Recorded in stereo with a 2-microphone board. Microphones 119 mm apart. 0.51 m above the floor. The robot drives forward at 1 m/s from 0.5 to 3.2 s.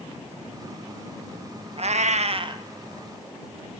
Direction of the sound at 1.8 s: 55° right (ahead or behind).